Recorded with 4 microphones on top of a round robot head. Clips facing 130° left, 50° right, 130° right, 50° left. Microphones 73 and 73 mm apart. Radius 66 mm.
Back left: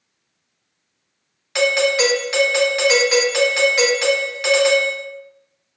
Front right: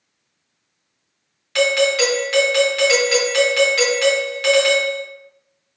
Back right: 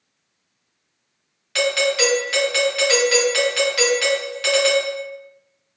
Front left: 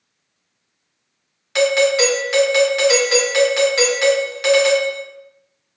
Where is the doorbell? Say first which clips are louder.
Even, front left 5 dB; 80° left, 1.2 m.